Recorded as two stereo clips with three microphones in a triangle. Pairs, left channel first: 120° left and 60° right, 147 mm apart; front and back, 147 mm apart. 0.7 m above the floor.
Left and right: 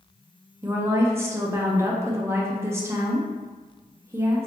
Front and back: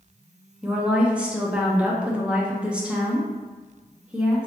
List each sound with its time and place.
0.6 s a woman speaking: 110° right, 0.7 m